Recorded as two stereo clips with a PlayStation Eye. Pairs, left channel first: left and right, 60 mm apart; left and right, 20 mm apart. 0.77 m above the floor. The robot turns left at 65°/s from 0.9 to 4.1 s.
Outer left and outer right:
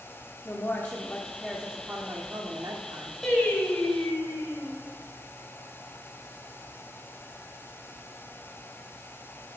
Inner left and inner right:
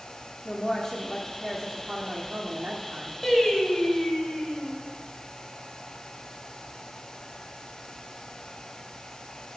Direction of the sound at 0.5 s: 40° left.